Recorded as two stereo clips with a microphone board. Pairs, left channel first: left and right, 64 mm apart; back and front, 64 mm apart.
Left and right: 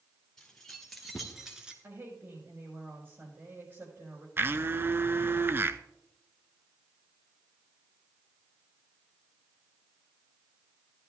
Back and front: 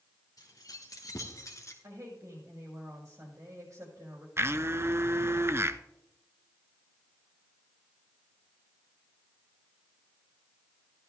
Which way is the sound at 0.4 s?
175° left.